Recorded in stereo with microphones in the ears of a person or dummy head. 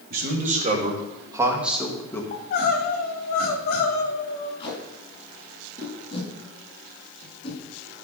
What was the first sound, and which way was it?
A man speaking, 50° right (ahead or behind).